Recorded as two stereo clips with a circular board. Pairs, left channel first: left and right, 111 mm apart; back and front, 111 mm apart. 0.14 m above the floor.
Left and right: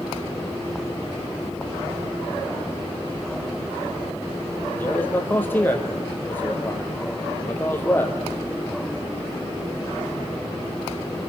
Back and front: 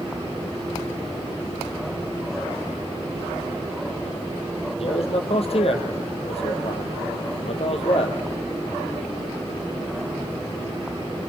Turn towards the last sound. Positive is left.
turn(degrees=160)